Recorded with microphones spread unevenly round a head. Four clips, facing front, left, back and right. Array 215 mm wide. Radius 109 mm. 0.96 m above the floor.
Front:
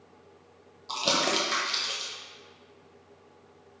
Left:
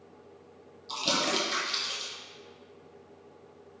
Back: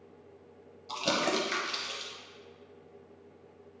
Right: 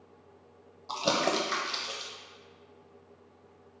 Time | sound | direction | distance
0.9 | crumpling | 70° right | 0.8 m